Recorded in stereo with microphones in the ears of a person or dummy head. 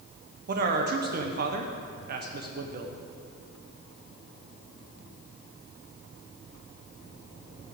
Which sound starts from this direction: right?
A man speaking, at 0.5 s.